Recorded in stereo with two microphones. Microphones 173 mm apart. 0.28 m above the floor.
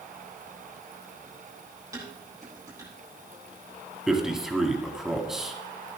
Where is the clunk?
I don't hear a clunk.